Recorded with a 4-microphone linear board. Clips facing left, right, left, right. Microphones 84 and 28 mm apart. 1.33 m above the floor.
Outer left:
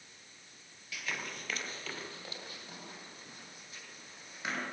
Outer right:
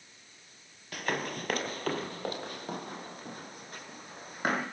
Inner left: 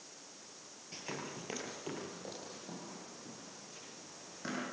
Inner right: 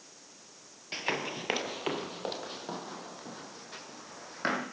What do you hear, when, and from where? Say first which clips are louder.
0.9 s running footsteps: outer right 8 dB, inner right 11 dB; 50° right (ahead or behind), 2.0 m